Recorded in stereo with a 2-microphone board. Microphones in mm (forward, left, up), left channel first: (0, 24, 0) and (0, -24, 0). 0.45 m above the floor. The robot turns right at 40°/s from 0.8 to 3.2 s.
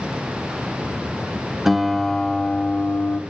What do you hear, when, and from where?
1.6 s a guitar: 10° right, 1.0 m; by 3.2 s 55° left, 1.0 m